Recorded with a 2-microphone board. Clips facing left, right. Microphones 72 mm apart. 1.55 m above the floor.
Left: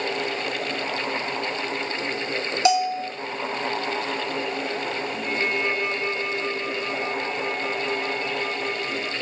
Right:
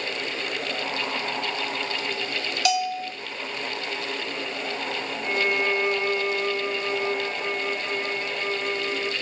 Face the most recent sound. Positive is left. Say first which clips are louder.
# right 2 dB
turn(degrees=-20)  # may be behind; listen again after turning